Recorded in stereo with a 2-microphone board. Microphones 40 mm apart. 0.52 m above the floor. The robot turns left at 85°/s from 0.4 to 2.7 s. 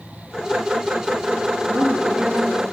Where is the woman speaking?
115° right, 7.5 m; by 2.6 s 160° left, 7.5 m.